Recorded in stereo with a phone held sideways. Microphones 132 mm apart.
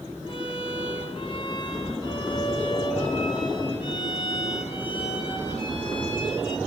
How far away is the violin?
About 8.5 m.